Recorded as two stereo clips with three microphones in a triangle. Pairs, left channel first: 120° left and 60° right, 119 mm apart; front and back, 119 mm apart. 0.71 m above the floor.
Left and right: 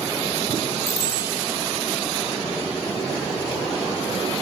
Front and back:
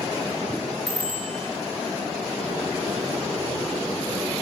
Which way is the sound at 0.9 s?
85° left.